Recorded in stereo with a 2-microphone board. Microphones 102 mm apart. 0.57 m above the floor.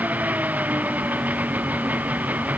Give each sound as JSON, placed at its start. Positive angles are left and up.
{"t": 0.0, "sound": "an engine running", "side_deg": -15}